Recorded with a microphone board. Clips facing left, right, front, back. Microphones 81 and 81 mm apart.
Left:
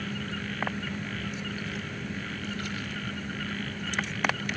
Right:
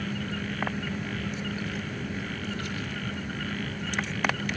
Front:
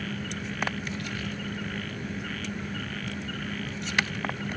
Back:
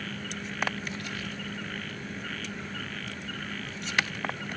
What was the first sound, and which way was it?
Only background noise.